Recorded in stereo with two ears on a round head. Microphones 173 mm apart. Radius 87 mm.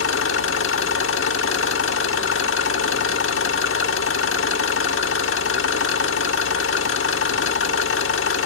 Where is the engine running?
70° left (ahead or behind), 1.2 m.